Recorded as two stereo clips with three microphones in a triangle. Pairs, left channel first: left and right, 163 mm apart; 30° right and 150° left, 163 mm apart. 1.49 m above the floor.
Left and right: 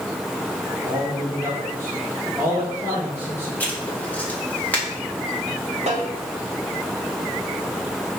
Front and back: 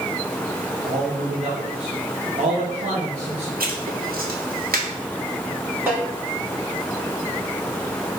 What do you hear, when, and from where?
0.8 s a man speaking: 165° right, 1.9 m
3.6 s writing: 170° left, 2 m
5.9 s a snare drum: 135° right, 4.5 m